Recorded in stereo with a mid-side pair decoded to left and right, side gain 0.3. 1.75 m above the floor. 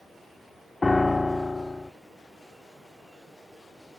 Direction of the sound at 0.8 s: 30° left.